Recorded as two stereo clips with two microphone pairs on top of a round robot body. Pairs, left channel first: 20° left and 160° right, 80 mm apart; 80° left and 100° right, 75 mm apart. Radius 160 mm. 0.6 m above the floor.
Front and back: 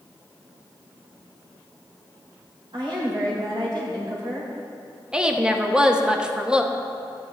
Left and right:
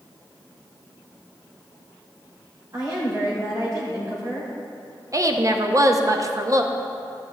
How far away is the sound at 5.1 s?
About 1.0 m.